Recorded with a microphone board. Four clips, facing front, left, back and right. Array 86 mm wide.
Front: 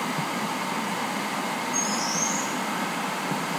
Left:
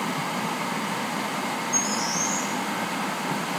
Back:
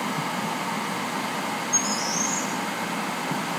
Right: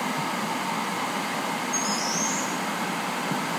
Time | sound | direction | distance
1.7 | a bird | 170° right | 3.5 m